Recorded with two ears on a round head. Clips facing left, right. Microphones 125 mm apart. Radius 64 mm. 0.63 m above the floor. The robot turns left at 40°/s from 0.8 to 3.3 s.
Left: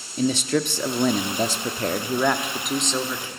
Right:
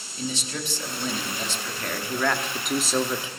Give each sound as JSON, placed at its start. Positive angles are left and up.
{"t": 0.2, "sound": "a man speaking", "azimuth_deg": 75, "distance_m": 1.2}